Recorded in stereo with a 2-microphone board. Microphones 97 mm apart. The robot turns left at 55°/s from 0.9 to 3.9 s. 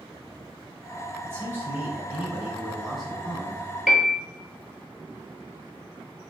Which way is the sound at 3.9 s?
5° right (ahead or behind).